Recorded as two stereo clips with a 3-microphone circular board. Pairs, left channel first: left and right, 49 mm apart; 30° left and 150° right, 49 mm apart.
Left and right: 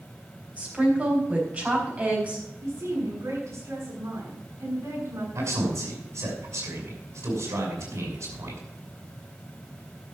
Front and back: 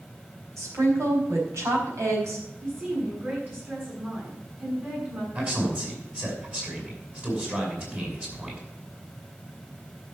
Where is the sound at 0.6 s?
150° right, 4.5 m.